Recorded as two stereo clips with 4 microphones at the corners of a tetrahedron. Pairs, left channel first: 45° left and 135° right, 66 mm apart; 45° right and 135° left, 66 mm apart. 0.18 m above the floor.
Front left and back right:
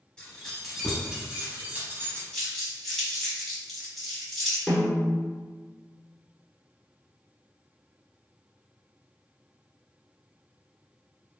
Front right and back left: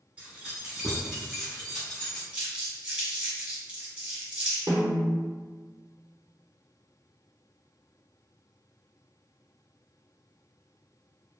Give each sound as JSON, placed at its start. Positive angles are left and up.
{"t": 0.2, "sound": "keys jangling", "azimuth_deg": 105, "distance_m": 1.0}
{"t": 2.3, "sound": "crumpling", "azimuth_deg": 120, "distance_m": 1.1}
{"t": 4.7, "sound": "a snare drum", "azimuth_deg": 125, "distance_m": 1.0}